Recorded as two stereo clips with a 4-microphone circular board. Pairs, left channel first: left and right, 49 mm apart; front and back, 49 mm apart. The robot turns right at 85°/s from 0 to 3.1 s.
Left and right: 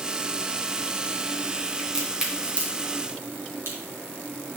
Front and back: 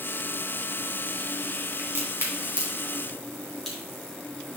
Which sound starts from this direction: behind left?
A crack, at 1.8 s.